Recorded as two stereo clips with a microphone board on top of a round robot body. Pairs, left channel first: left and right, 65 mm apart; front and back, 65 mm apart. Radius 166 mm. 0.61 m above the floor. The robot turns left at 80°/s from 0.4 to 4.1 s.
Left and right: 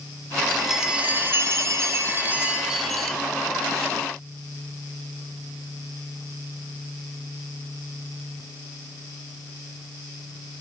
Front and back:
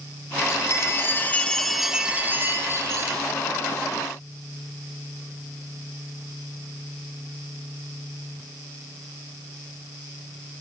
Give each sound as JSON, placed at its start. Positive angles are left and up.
{"t": 0.4, "sound": "a chime", "azimuth_deg": 15, "distance_m": 1.2}